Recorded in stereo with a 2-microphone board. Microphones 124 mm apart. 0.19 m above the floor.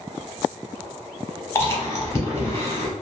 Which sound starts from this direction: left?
Chewing, at 1.6 s.